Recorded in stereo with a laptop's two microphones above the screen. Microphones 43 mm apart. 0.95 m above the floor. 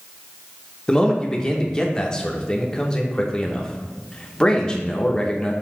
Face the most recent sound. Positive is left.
turn(degrees=15)  # may be behind; listen again after turning